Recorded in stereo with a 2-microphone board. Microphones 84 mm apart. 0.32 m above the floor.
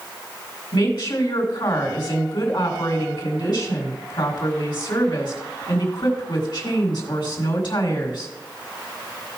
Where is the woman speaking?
65° left (ahead or behind), 3.5 m.